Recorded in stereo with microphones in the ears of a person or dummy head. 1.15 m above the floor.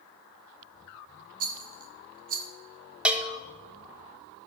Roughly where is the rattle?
Right.